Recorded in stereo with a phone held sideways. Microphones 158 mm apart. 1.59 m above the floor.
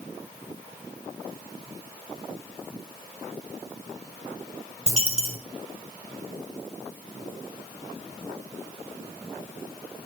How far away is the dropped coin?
About 2 m.